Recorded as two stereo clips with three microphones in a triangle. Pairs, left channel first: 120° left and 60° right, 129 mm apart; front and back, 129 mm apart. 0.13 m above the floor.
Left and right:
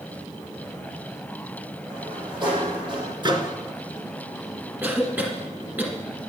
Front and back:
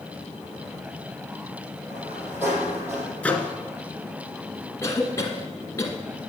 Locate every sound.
1.9 s a sliding door: 105° right, 5 m
3.2 s a microwave: 75° right, 1.1 m
4.8 s a cough: 5° right, 1.1 m